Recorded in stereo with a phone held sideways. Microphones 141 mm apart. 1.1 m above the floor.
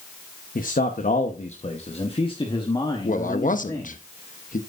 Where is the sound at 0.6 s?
80° left, 1.1 m; by 4.0 s 15° left (ahead or behind), 2.0 m.